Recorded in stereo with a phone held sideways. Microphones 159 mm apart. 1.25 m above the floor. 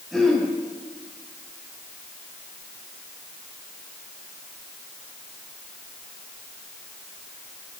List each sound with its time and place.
0.1 s throat clearing: centre (ahead or behind), 7.5 m